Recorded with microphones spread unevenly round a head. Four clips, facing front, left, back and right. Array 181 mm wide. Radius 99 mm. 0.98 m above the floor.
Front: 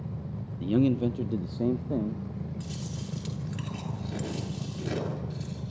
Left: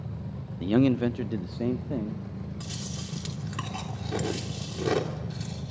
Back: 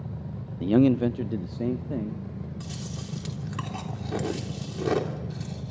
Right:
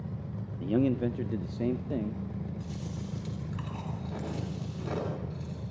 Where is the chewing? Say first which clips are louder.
Left 1 dB, even; 135° left, 3.5 m.